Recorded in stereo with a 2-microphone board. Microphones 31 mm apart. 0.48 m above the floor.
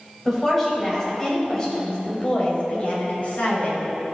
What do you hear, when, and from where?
0.2 s a woman speaking: 10° left (ahead or behind), 3 m; by 3.9 s 55° left (ahead or behind), 3 m